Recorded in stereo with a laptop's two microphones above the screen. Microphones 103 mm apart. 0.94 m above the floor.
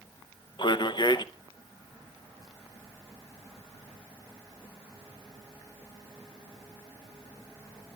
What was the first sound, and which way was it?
A man speaking, 45° left (ahead or behind).